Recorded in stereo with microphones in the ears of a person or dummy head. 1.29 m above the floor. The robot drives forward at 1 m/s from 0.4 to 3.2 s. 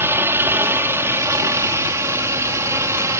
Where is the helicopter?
15° right (ahead or behind).